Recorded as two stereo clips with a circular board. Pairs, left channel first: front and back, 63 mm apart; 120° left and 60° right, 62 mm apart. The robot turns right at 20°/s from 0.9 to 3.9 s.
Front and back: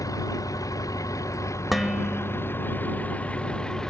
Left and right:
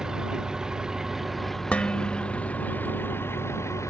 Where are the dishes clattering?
95° left; by 2.4 s 110° left.